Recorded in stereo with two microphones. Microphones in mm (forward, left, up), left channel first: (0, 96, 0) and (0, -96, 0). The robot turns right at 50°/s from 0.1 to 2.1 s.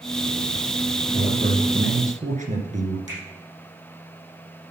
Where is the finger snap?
40° right (ahead or behind), 5.5 m.